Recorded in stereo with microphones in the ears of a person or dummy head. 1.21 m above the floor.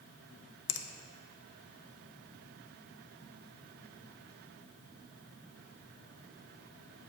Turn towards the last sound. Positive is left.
turn(degrees=70)  # may be behind; listen again after turning